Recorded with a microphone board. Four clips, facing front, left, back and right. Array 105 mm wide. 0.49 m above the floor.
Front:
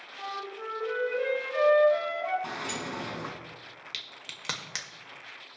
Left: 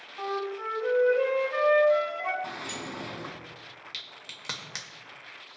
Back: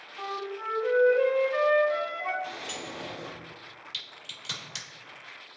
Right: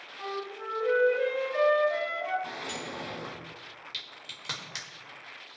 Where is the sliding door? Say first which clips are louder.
Even, front 3 dB; 20° left, 2 m.